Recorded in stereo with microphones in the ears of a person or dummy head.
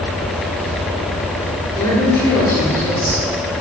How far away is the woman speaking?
About 3 m.